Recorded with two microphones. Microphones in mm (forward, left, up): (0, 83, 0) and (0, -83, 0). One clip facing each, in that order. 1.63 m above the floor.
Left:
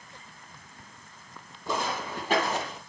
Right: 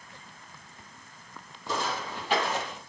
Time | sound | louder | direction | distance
1.7 | footsteps | left 1 dB | 55° left (ahead or behind) | 3 m